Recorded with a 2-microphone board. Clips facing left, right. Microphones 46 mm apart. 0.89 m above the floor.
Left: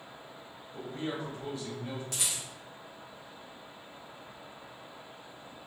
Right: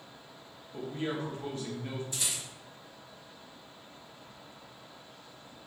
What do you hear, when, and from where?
0.7 s a man speaking: 45° right (ahead or behind), 0.9 m
2.1 s a rattle: 80° left, 0.8 m